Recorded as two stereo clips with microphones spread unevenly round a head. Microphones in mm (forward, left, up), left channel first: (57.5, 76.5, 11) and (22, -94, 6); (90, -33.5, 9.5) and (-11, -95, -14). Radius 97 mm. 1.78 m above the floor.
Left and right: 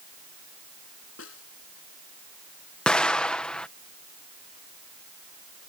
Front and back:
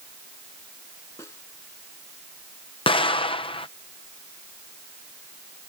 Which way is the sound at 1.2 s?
110° left.